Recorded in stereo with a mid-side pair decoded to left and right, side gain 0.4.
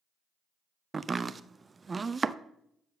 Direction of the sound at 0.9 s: 35° right.